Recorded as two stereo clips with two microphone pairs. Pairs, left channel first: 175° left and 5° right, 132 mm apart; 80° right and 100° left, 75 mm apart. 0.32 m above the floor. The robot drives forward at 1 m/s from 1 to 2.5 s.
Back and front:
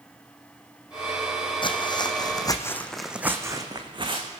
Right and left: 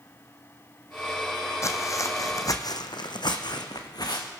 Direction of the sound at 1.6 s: 130° right.